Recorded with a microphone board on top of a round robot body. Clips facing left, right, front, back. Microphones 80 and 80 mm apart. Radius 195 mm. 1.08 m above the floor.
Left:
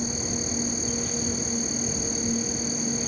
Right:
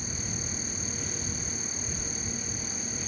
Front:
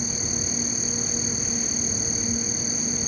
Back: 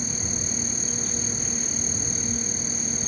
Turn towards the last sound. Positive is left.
turn(degrees=80)